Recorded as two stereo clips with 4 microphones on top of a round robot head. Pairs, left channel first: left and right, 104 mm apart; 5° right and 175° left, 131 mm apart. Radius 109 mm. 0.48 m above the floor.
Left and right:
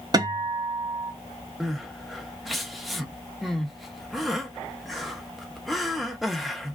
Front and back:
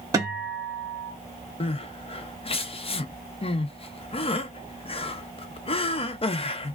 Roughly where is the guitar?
Behind right.